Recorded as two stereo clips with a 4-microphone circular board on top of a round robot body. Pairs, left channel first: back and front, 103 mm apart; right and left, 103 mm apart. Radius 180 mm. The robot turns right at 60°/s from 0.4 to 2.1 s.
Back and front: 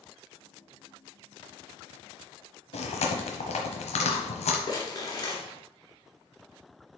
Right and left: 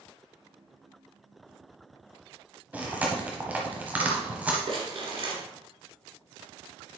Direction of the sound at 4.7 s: 125° left.